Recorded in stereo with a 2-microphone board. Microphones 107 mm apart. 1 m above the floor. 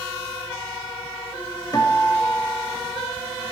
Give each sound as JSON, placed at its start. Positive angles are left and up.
{"t": 1.7, "sound": "a guitar", "side_deg": 35, "distance_m": 1.7}